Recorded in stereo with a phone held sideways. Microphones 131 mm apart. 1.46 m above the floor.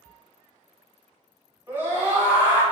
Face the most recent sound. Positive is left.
turn(degrees=-15)  # may be behind; listen again after turning